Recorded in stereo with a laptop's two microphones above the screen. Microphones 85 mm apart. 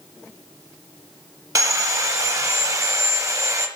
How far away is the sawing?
About 1.1 m.